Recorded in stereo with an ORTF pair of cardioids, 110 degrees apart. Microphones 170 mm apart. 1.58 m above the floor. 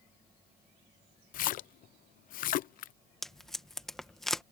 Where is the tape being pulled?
Straight ahead.